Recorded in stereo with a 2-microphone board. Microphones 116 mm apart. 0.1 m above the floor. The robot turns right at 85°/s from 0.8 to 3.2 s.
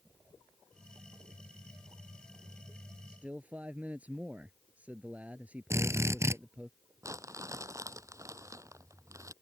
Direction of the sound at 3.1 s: 5° right (ahead or behind).